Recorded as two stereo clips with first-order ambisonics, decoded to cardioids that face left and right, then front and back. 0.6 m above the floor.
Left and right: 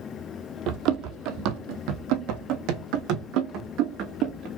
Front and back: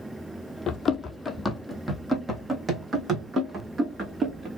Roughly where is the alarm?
No alarm in this recording.